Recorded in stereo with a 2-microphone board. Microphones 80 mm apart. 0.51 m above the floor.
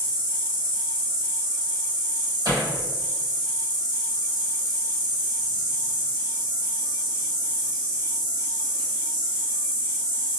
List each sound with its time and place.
0.0 s an insect: 80° right, 1.3 m
2.5 s hammering: 60° right (ahead or behind), 1.8 m